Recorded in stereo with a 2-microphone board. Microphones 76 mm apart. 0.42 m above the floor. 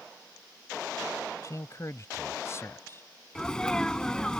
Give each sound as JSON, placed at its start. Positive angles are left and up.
{"t": 1.4, "sound": "a man speaking", "side_deg": 45}
{"t": 3.4, "sound": "a sneeze", "side_deg": 10}